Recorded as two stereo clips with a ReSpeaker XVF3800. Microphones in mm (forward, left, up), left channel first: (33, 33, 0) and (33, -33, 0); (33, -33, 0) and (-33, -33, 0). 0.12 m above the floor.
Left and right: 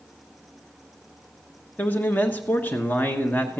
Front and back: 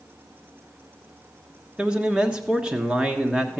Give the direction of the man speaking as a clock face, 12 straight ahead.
8 o'clock.